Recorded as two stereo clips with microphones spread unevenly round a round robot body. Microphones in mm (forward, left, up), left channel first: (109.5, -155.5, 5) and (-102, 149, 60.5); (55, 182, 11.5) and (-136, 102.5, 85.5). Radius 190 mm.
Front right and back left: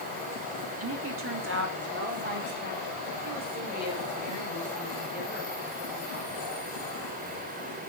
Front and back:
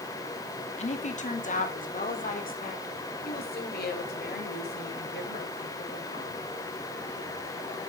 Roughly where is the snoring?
I don't hear snoring.